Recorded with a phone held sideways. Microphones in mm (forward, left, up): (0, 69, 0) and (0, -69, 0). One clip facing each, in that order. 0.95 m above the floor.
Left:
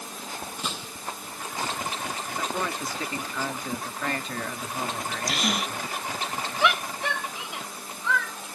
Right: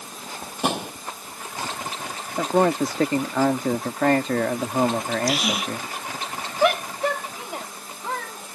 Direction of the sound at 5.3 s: 5° right (ahead or behind).